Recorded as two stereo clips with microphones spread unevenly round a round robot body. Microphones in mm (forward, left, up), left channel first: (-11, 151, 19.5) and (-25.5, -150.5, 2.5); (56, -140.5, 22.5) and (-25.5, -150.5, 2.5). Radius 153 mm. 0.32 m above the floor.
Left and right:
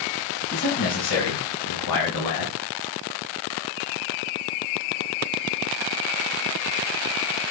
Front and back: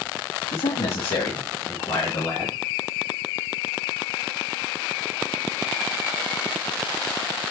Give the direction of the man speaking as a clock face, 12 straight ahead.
11 o'clock.